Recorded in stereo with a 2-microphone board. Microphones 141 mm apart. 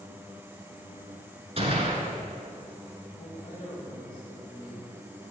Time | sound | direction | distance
1.6 | a gunshot | 45° right (ahead or behind) | 1.4 m
3.1 | a woman speaking | 45° left (ahead or behind) | 1.6 m